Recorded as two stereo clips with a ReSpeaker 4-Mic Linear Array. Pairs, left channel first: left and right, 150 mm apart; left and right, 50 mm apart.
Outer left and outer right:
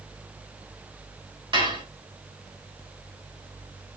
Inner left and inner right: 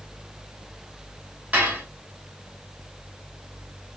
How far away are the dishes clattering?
About 1.9 m.